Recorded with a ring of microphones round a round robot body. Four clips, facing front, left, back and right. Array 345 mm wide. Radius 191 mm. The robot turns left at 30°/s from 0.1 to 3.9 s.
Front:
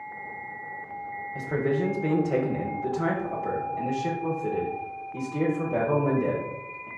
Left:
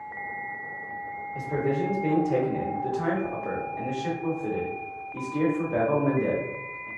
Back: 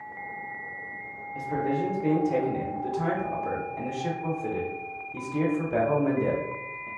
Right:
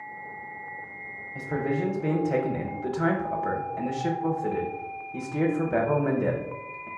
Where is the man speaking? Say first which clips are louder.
Left 1 dB, front 1 dB; 20° right, 0.9 m; by 6.9 s 95° right, 0.9 m.